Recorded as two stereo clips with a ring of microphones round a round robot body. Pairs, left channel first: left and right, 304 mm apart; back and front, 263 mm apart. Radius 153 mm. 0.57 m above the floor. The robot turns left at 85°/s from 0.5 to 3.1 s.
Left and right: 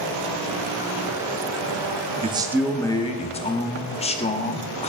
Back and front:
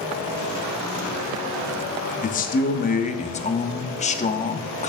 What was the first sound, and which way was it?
A man speaking, 145° right.